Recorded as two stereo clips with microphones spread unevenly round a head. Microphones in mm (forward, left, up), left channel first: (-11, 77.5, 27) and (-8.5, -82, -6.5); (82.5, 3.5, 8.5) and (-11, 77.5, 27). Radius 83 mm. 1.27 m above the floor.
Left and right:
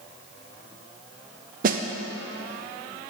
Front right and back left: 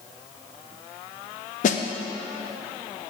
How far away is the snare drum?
About 0.6 m.